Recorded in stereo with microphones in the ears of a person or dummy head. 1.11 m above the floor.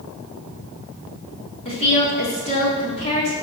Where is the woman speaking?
30° left (ahead or behind), 2 m.